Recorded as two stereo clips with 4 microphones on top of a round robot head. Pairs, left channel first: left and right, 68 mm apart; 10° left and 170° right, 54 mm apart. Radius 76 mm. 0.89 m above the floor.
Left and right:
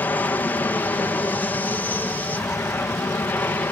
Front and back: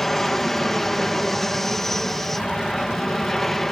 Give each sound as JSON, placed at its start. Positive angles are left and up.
{"t": 0.0, "sound": "an aircraft", "azimuth_deg": 85}